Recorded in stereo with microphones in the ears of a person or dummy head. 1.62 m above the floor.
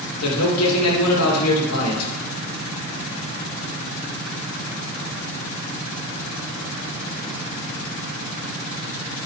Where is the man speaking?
85° left, 2.5 m.